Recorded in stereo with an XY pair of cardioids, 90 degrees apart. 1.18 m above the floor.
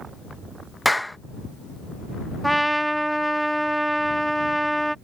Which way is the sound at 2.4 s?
5° right.